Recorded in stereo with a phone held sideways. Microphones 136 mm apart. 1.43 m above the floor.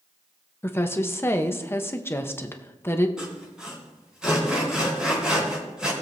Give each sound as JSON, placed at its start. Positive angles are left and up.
{"t": 0.6, "sound": "a woman speaking", "side_deg": 20, "distance_m": 0.8}
{"t": 3.2, "sound": "sawing", "side_deg": -5, "distance_m": 3.5}